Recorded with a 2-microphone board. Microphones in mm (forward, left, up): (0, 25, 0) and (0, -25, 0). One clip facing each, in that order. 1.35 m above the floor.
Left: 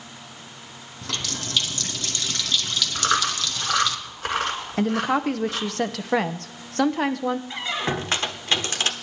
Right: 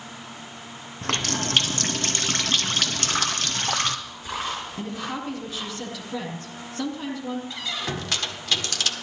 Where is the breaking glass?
I don't hear breaking glass.